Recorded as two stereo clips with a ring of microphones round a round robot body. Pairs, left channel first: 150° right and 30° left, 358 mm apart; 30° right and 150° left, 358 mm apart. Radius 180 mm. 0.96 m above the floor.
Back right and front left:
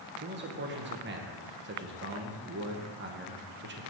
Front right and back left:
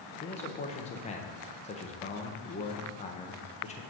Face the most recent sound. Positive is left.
turn(degrees=20)